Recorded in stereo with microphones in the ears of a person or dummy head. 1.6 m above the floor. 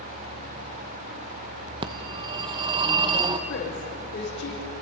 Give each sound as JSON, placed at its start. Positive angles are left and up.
{"t": 1.8, "sound": "a phone ringing", "side_deg": -20, "distance_m": 0.9}
{"t": 3.5, "sound": "a woman speaking", "side_deg": 60, "distance_m": 6.0}